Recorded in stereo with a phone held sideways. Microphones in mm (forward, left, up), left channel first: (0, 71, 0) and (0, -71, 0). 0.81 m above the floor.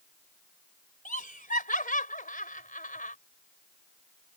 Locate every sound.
1.1 s laughter: 75° left (ahead or behind)